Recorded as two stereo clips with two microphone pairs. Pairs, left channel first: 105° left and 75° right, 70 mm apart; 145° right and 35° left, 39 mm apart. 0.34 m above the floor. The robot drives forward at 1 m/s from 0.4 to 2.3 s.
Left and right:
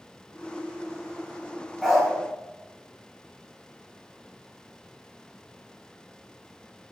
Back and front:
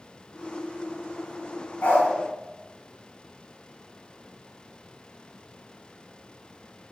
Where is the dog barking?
165° right, 0.8 m; by 2.1 s 170° right, 1.1 m.